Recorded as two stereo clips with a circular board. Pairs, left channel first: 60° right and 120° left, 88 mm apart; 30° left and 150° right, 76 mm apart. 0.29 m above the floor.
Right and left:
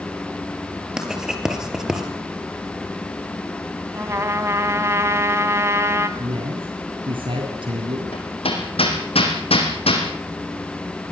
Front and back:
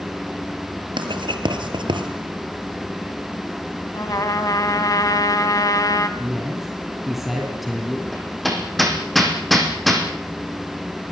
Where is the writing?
155° right, 3.5 m.